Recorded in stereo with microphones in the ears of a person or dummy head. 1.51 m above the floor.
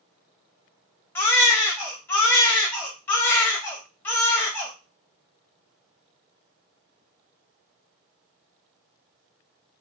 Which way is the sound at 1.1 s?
10° left (ahead or behind).